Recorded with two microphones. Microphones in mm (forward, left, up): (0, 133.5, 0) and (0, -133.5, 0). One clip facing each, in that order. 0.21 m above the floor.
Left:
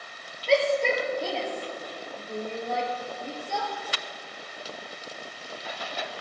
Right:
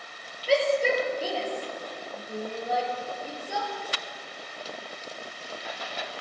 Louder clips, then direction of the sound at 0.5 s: Even; 5° right (ahead or behind).